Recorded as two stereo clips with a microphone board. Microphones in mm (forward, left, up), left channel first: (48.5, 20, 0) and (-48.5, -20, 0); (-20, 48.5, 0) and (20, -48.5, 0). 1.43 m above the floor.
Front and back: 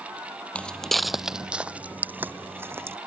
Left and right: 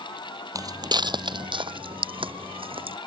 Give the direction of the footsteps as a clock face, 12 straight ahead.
2 o'clock.